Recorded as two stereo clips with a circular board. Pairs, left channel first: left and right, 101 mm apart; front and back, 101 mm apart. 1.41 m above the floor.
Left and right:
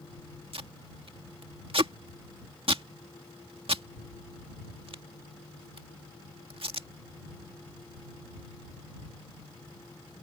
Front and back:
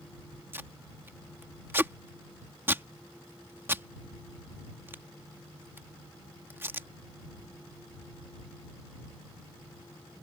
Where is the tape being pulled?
115° right.